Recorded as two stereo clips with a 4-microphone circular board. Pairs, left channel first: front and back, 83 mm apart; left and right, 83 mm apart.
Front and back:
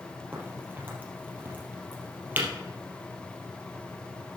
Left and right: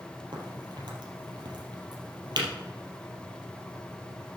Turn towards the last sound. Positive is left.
turn(degrees=-115)